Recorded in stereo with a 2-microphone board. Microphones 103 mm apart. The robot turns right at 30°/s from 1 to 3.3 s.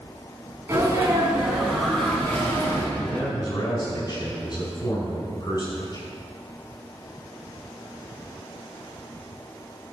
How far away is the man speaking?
About 5 m.